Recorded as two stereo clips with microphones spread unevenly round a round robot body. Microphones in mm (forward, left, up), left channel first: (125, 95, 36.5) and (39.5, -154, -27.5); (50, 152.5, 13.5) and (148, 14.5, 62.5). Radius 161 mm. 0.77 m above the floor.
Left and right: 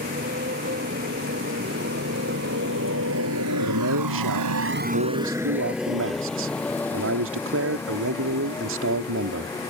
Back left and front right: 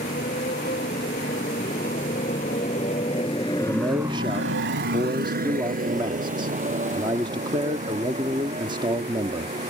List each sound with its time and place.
0.0 s a motorcycle: 175° right; by 9.7 s 5° right
3.6 s a man speaking: 130° right